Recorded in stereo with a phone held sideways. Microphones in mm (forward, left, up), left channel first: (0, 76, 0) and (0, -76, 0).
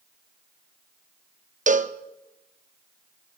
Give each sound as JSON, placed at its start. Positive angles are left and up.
{"t": 1.7, "sound": "a cowbell", "side_deg": -55, "distance_m": 0.6}